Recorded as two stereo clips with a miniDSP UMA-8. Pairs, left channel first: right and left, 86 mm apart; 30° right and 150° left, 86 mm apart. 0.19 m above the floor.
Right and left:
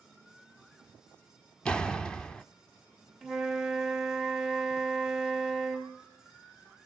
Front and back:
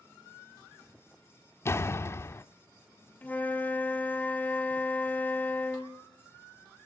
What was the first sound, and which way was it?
A door slam, 15° right.